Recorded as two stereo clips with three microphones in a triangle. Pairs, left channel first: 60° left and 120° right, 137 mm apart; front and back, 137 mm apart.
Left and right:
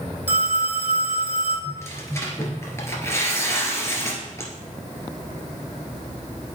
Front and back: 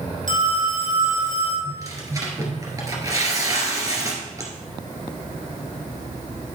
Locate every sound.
0.3 s a phone ringing: 165° left, 3 m
1.6 s tearing paper: 125° left, 2 m